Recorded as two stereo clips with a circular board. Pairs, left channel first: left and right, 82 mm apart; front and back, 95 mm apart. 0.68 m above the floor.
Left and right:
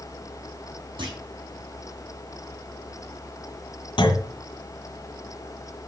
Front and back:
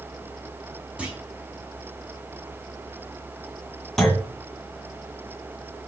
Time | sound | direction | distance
1.0 | a clunk | 100° right | 5 m
4.0 | a clunk | 85° left | 2.5 m